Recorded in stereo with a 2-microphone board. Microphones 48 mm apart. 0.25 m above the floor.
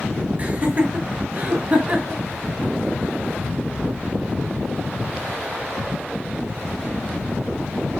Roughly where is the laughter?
Right.